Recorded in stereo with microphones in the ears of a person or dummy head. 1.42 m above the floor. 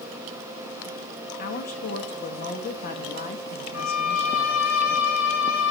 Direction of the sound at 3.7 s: 85° left.